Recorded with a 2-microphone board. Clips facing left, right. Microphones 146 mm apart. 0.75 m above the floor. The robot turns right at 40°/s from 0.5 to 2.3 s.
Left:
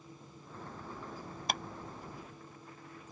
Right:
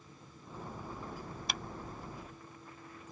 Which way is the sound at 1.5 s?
50° left (ahead or behind).